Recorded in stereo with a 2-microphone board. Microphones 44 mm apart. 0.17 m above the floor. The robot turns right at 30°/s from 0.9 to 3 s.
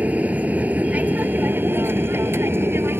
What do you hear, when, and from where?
0.0 s an aircraft: 140° right; by 3.0 s 75° right